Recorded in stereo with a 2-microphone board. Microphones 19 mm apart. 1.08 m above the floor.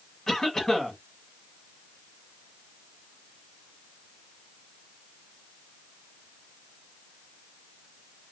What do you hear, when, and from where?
0.3 s a cough: 30° left (ahead or behind), 1.5 m